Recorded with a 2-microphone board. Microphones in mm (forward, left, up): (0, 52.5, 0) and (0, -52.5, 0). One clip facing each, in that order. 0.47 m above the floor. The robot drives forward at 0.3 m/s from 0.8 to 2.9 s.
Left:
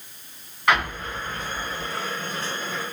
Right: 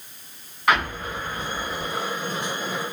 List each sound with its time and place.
0.7 s an explosion: 5° right (ahead or behind), 1.6 m